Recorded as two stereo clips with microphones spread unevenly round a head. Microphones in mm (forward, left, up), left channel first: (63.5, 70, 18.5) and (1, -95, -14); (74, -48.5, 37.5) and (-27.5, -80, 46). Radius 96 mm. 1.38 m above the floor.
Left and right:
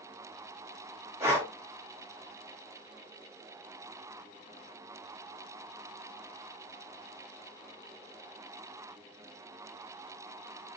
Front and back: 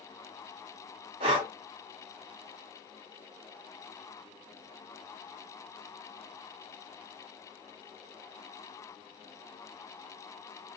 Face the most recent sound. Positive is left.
turn(degrees=170)